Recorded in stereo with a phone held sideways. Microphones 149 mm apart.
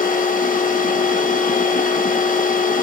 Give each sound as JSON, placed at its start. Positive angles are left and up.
{"t": 0.0, "sound": "a machine running", "side_deg": 70, "distance_m": 0.9}